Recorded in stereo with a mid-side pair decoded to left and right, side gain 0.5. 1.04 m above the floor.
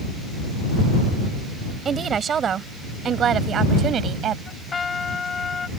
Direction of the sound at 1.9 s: 40° right.